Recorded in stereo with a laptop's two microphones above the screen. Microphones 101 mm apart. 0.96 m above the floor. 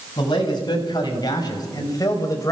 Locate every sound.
0.2 s a man speaking: 45° left (ahead or behind), 6 m; by 2.5 s 30° left (ahead or behind), 4 m